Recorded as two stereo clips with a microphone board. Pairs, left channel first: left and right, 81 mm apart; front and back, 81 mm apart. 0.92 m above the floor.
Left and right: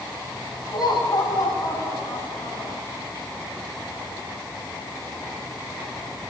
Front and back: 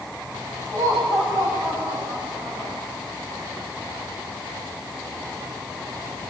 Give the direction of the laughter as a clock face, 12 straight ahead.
8 o'clock.